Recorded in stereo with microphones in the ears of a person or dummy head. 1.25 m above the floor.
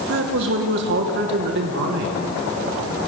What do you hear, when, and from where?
0.1 s a man speaking: 60° right (ahead or behind), 1.3 m